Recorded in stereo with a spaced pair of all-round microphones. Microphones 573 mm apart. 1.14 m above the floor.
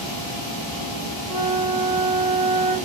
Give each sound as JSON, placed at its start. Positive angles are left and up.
{"t": 1.3, "sound": "a flute", "side_deg": -80, "distance_m": 1.8}